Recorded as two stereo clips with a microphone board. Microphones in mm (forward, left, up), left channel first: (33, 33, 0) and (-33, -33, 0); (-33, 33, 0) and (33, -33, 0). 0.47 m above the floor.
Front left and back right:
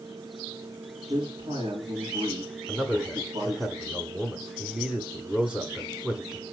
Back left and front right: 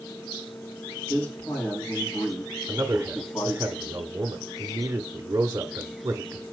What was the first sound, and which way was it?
A man speaking, 155° right.